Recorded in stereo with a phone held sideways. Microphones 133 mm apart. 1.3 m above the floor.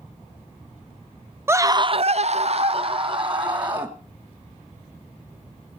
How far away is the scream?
About 0.6 m.